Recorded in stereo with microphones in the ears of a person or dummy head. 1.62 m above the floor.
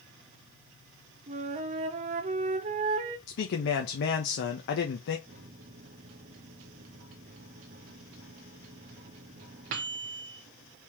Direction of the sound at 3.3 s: 60° left (ahead or behind).